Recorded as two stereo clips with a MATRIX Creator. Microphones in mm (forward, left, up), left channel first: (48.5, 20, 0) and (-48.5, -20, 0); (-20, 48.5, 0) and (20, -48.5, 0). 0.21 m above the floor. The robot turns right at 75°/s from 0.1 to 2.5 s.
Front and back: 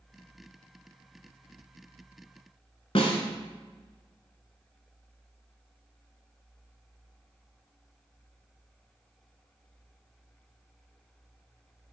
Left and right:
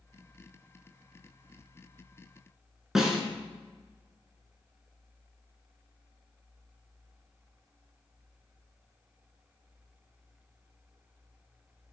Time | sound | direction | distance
3.0 | a snare drum | 20° left | 0.7 m